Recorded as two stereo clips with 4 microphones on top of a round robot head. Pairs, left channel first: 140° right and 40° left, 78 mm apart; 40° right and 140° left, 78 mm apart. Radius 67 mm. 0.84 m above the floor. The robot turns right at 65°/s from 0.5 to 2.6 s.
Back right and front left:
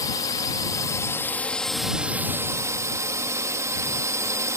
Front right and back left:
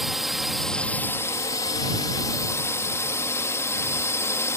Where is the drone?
135° right; by 4.6 s 5° left.